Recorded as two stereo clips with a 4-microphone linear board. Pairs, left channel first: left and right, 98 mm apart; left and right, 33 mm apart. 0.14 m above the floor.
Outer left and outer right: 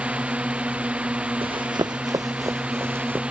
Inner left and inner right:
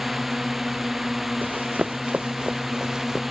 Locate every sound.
0.0 s a drone: 10° right (ahead or behind)
1.4 s running footsteps: 55° right (ahead or behind); by 3.2 s 20° right (ahead or behind)